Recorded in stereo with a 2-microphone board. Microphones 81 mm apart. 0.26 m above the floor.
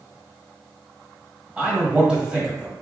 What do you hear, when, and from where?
1.6 s a man speaking: 10° right (ahead or behind), 1.3 m